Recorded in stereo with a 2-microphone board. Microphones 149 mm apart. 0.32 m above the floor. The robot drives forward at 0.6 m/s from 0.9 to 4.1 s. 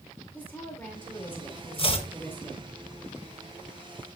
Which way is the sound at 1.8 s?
40° left (ahead or behind).